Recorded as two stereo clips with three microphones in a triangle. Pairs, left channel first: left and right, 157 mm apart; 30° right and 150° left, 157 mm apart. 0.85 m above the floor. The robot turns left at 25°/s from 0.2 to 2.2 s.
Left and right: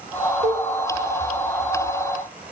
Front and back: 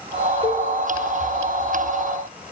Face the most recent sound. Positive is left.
turn(degrees=-140)